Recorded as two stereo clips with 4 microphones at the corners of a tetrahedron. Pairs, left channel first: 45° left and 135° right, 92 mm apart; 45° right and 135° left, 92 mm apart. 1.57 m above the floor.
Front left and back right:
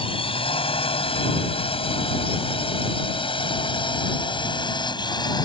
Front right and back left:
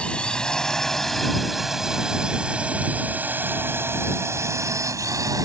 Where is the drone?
35° left; by 5.5 s 85° left.